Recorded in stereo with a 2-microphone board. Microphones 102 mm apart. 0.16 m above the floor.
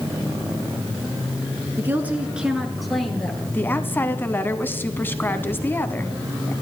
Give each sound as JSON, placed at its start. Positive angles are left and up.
{"t": 1.8, "sound": "a woman speaking", "side_deg": -20, "distance_m": 1.8}
{"t": 3.5, "sound": "a woman speaking", "side_deg": 20, "distance_m": 1.0}